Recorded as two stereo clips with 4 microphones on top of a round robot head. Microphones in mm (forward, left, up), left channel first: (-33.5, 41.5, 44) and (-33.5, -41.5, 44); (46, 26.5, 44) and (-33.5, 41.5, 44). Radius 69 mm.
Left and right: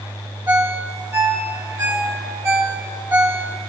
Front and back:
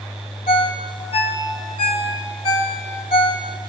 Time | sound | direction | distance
0.5 | a ringtone | 20° right | 1.2 m